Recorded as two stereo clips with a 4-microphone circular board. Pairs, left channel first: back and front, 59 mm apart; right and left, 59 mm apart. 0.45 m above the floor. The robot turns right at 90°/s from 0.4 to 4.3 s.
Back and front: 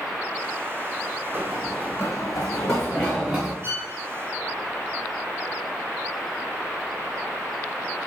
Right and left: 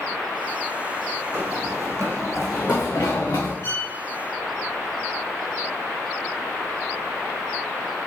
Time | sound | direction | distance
1.3 | running footsteps | 45° left | 1.3 m
3.6 | a violin | 55° right | 2.5 m